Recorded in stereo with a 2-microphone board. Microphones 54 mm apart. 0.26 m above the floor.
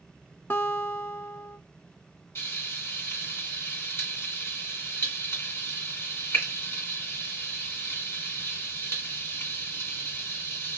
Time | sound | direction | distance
0.5 | a guitar | 45° left (ahead or behind) | 0.6 m
2.4 | frying | 45° left (ahead or behind) | 1.9 m